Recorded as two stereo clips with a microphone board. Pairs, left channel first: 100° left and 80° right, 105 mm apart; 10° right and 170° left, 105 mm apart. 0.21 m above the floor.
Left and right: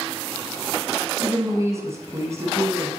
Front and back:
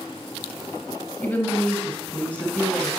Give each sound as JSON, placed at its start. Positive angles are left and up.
{"t": 1.2, "sound": "a woman speaking", "azimuth_deg": -70, "distance_m": 1.1}